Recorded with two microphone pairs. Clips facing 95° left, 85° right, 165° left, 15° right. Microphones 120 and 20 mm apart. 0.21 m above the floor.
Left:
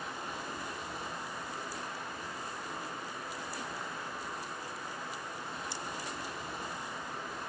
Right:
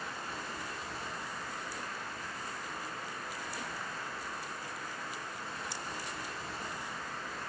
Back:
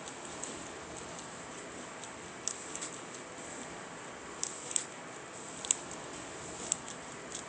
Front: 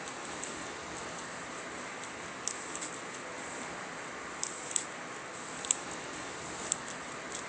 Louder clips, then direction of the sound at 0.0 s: Left 1 dB, front 3 dB; 20° left.